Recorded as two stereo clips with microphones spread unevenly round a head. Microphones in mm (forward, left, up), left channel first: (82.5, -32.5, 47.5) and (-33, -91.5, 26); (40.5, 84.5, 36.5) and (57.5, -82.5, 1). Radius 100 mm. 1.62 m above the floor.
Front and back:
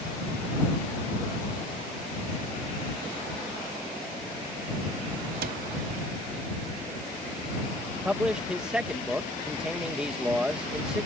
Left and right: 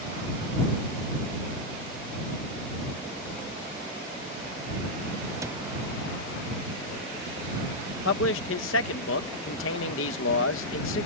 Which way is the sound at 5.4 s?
160° right.